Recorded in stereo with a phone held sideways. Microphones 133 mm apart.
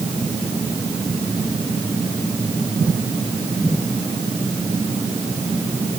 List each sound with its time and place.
Only background noise.